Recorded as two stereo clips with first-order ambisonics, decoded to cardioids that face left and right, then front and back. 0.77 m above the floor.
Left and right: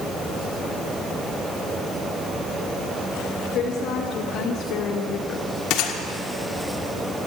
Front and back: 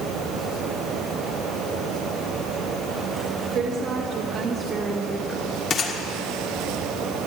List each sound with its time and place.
3.5 s a woman speaking: 135° left, 1.8 m; by 5.5 s 70° left, 0.8 m
5.7 s a gunshot: 60° left, 1.7 m